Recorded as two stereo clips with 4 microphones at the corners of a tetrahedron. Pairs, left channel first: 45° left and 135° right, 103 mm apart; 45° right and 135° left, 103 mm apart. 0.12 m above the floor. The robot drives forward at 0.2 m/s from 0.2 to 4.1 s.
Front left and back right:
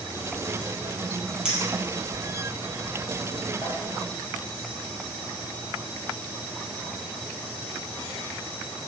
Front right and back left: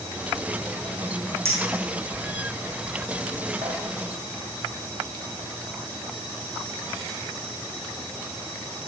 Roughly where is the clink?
Behind left.